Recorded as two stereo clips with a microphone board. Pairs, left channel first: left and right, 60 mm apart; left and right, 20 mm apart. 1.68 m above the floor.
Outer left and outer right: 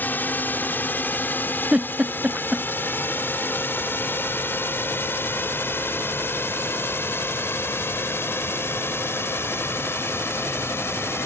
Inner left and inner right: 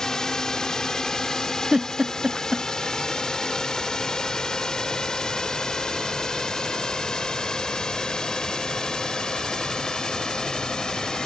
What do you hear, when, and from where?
0.0 s a drone: 30° left (ahead or behind); by 11.3 s 40° left (ahead or behind)
1.7 s a giggle: 20° right (ahead or behind)